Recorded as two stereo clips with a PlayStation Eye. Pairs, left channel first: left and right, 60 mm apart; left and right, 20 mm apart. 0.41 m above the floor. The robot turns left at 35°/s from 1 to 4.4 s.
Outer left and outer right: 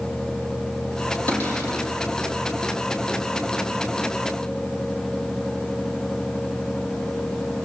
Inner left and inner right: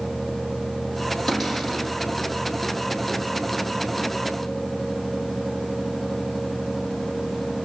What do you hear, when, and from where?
1.3 s a cupboard door: 30° left (ahead or behind), 5.5 m; by 1.8 s 45° left (ahead or behind), 5.5 m